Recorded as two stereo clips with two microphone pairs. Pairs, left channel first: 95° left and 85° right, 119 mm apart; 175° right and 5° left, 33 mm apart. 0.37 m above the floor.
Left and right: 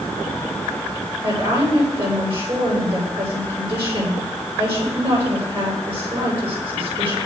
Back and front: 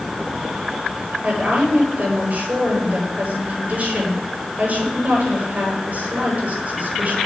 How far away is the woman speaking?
About 9.5 m.